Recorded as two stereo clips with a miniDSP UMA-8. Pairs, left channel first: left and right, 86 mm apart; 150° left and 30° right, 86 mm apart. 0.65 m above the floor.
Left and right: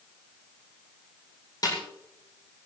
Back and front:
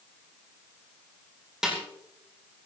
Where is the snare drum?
55° left, 6 m.